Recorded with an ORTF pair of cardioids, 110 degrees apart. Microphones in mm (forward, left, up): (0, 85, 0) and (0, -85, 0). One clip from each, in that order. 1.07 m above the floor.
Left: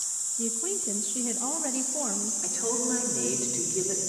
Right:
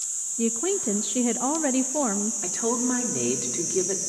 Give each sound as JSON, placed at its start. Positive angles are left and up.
{"t": 0.4, "sound": "a woman speaking", "azimuth_deg": -45, "distance_m": 0.6}
{"t": 2.4, "sound": "a woman speaking", "azimuth_deg": -40, "distance_m": 3.0}